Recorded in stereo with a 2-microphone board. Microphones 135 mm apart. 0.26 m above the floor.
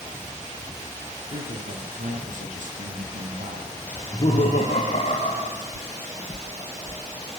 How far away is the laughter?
About 7 m.